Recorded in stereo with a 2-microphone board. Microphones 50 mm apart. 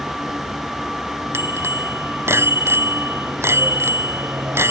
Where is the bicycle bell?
60° right (ahead or behind).